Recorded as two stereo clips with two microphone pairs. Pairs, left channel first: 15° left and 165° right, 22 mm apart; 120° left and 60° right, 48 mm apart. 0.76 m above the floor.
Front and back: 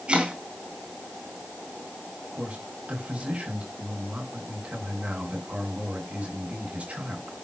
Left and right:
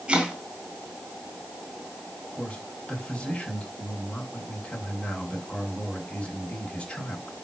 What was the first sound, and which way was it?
Chopping, 130° right.